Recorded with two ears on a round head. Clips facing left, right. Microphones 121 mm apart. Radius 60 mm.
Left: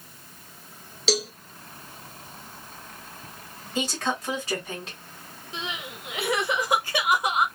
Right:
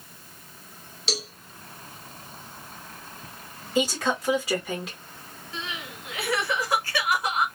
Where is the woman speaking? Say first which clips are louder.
Right 3 dB; 5° right (ahead or behind), 1.7 m.